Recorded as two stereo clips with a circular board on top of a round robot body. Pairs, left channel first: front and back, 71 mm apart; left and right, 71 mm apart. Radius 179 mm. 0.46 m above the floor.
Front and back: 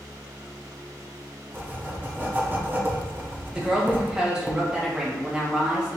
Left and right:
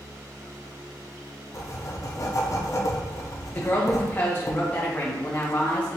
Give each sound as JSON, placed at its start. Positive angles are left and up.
{"t": 1.5, "sound": "writing", "azimuth_deg": 120, "distance_m": 0.9}
{"t": 3.5, "sound": "a woman speaking", "azimuth_deg": 110, "distance_m": 1.2}